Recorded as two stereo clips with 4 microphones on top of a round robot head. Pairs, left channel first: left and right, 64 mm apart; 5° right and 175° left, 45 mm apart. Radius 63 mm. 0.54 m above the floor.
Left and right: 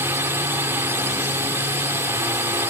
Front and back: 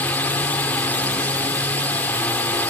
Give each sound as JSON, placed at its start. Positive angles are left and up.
{"t": 0.0, "sound": "a drone", "azimuth_deg": -45}